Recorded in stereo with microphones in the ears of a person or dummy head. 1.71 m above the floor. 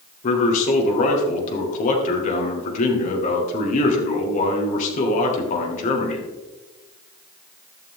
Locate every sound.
0.2 s a man speaking: 50° left (ahead or behind), 1.9 m